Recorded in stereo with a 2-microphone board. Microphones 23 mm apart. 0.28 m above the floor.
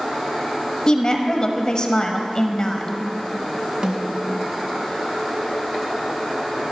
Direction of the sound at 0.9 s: 35° left (ahead or behind).